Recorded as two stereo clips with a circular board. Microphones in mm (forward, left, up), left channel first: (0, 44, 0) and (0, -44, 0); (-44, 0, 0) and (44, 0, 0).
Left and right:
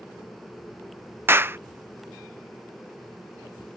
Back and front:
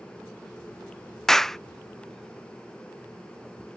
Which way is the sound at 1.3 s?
100° right.